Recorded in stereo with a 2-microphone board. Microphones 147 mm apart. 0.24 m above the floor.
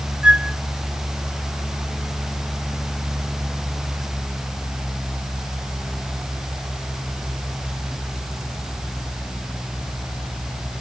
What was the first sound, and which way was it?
A flute, 5° right (ahead or behind).